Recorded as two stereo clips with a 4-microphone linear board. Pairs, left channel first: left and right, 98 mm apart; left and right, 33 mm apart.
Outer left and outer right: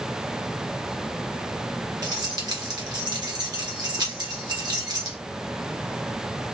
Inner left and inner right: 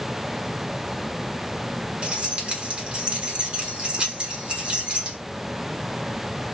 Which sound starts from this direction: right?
Keys jangling, at 2.0 s.